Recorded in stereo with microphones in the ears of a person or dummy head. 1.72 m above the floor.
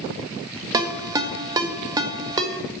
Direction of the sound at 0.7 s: 20° right (ahead or behind).